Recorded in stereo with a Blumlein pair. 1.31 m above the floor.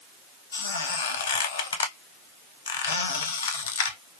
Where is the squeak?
65° left, 0.9 m.